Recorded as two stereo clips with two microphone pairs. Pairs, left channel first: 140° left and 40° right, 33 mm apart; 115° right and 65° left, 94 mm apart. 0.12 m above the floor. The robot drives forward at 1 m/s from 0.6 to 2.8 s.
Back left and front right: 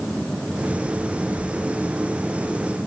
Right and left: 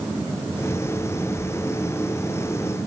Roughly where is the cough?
I don't hear a cough.